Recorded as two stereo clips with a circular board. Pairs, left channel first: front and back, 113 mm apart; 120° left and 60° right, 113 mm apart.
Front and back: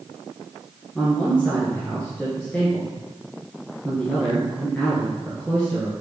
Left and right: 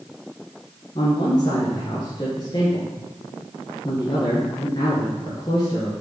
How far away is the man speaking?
About 1.8 m.